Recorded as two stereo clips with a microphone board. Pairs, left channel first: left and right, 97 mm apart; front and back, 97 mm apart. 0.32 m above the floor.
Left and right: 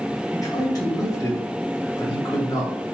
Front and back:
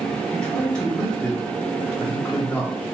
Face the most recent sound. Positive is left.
turn(degrees=75)